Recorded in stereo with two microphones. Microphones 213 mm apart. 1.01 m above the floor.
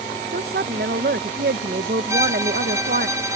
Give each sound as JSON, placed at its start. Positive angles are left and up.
{"t": 0.3, "sound": "a woman speaking", "side_deg": -50}
{"t": 2.1, "sound": "a violin", "side_deg": -15}